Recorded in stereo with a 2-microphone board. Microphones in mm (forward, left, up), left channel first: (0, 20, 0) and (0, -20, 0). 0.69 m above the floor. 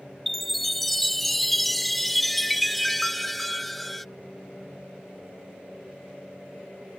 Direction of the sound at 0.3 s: 5° left (ahead or behind).